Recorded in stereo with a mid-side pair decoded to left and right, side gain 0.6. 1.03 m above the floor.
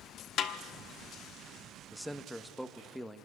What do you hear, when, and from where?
0.4 s a snare drum: 50° left, 1.1 m
1.9 s a man speaking: straight ahead, 1.1 m